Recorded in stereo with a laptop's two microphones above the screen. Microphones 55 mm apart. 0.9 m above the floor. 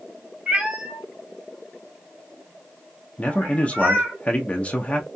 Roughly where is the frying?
I don't hear frying.